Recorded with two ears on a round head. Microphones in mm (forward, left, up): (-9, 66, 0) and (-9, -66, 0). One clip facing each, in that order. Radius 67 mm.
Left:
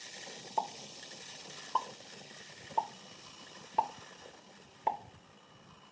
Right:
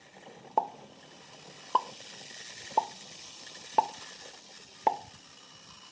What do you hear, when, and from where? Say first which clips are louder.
0.6 s a pop: right 6 dB; 60° right (ahead or behind), 0.5 m